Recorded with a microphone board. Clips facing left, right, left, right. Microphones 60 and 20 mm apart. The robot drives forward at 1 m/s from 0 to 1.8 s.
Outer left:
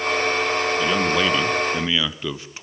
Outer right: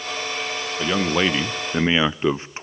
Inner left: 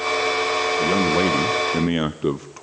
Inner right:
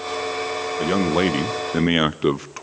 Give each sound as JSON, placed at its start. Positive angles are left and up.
{"t": 0.8, "sound": "a man speaking", "side_deg": -15, "distance_m": 1.3}